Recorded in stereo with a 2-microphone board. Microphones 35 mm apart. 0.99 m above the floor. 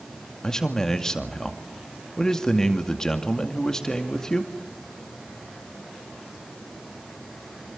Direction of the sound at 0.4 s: 15° left (ahead or behind).